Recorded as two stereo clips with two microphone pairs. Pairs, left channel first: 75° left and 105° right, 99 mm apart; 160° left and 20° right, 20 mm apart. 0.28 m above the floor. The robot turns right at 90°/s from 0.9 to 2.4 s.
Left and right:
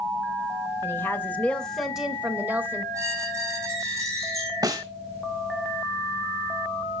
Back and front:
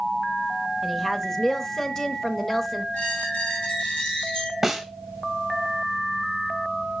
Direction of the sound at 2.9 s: 170° right.